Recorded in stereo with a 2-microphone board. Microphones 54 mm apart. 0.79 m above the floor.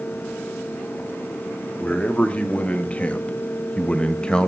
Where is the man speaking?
25° left (ahead or behind), 2 m; by 4.5 s 15° left (ahead or behind), 1.0 m.